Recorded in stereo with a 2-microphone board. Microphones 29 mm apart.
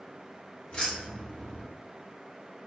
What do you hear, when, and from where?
0.7 s keys jangling: 35° left (ahead or behind), 1.0 m